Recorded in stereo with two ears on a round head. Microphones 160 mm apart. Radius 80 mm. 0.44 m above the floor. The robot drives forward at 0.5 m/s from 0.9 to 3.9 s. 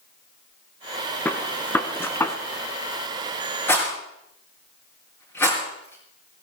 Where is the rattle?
15° left (ahead or behind), 5.5 m.